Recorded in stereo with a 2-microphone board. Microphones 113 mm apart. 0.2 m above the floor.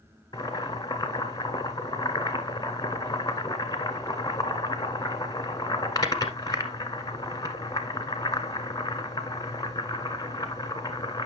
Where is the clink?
No clink in this recording.